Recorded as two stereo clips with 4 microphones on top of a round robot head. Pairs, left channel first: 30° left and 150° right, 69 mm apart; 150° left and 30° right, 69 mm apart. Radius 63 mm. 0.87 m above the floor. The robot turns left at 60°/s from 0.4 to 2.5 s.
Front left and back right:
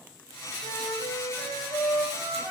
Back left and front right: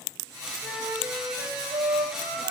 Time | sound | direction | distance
0.6 | a flute | 50° left | 5.5 m